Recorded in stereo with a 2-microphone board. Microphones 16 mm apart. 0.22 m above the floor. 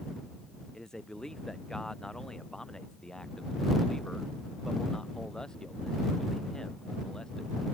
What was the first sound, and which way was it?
A man speaking, 50° left (ahead or behind).